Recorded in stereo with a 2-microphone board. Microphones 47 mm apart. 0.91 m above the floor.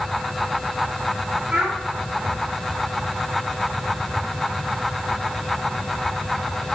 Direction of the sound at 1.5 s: 20° right (ahead or behind).